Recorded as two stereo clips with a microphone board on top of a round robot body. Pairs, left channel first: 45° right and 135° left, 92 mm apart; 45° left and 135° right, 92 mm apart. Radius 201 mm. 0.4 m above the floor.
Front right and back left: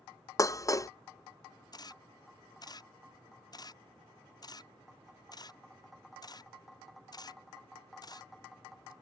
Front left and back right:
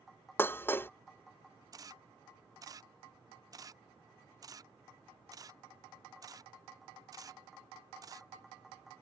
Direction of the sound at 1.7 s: 85° right.